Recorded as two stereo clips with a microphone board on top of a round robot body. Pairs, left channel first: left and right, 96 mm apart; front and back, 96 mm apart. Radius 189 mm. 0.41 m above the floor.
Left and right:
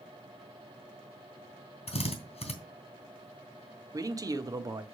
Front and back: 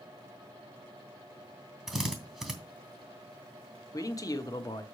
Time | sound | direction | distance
1.9 | a drill | 95° left | 2.5 m
3.9 | a man speaking | 45° right | 1.3 m